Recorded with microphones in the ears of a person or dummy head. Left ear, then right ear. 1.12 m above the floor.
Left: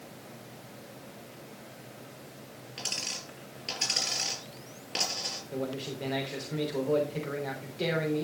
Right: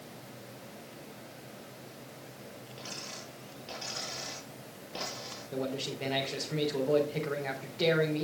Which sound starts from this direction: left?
A dropped coin, at 2.8 s.